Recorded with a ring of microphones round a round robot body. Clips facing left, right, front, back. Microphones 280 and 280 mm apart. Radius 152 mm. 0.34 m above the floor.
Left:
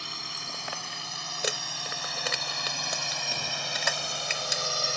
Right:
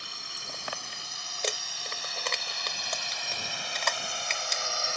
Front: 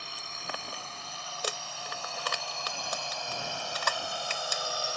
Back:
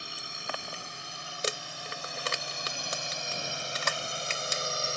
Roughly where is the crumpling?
Behind.